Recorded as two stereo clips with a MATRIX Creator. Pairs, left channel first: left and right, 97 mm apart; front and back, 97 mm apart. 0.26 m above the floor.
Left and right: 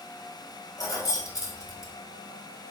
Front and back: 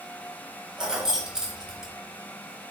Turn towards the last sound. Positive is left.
turn(degrees=100)